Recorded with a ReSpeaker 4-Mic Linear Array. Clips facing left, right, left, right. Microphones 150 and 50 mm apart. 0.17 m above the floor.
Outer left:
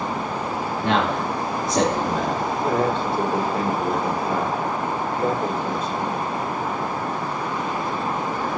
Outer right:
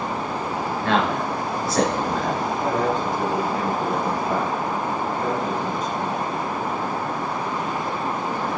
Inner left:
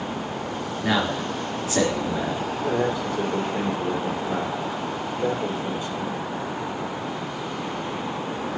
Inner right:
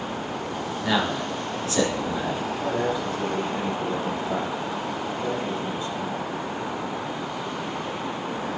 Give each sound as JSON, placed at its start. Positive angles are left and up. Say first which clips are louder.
{"t": 0.8, "sound": "a man speaking", "louder": "even, inner left 1 dB", "side_deg": 20, "distance_m": 3.0}
{"t": 2.6, "sound": "a man speaking", "louder": "outer left 1 dB, inner left 2 dB", "side_deg": 30, "distance_m": 4.0}